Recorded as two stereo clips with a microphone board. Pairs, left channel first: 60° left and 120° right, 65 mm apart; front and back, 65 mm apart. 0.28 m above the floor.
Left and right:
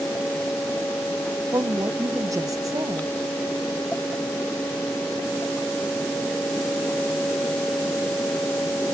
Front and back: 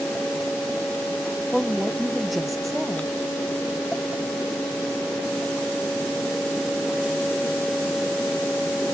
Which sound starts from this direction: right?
A woman speaking, at 1.5 s.